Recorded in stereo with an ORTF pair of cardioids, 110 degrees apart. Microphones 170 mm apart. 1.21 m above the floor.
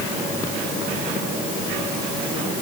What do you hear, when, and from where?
Only background noise.